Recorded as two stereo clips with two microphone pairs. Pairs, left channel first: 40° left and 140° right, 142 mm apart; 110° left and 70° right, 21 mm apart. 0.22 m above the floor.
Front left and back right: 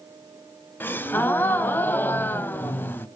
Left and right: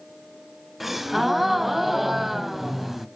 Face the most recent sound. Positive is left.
turn(degrees=-10)